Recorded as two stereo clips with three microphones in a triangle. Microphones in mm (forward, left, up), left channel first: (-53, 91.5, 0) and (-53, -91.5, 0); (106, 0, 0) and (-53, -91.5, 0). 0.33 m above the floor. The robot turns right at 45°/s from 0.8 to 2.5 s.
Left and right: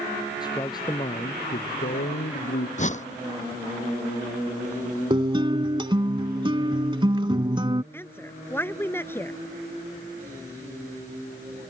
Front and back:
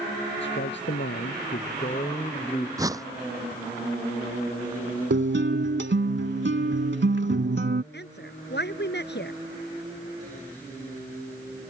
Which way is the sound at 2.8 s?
140° left.